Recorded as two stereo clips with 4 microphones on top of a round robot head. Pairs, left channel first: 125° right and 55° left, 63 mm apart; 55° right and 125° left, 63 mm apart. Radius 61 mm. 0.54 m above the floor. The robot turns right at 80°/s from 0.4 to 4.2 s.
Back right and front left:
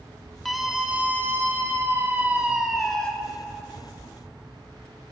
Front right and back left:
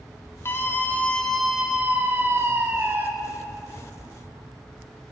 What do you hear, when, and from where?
0.5 s a scream: 40° right, 1.3 m; by 3.1 s 170° left, 1.3 m